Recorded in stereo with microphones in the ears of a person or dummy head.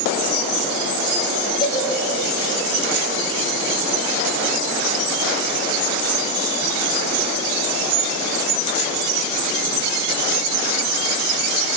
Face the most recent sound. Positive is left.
turn(degrees=25)  # may be behind; listen again after turning